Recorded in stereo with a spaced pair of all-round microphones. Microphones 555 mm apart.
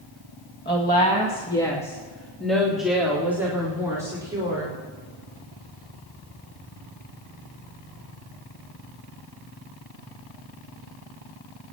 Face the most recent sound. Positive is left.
turn(degrees=-10)  # may be behind; listen again after turning